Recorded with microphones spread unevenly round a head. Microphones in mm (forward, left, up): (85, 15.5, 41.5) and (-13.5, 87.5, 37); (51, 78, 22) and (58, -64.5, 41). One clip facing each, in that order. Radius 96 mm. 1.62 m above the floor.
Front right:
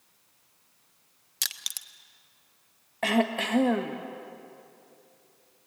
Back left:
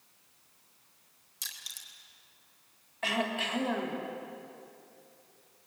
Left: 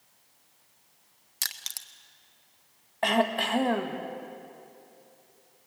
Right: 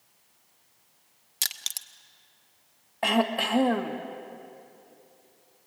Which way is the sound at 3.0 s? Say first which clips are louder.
Front right 7 dB, even; 5° right.